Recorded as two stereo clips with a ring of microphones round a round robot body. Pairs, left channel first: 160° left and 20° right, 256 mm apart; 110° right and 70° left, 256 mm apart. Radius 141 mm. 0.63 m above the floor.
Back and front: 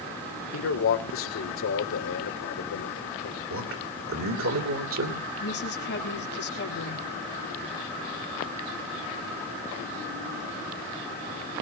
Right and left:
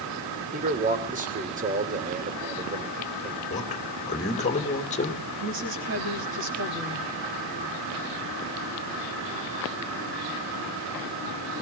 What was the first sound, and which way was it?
A man speaking, 125° left.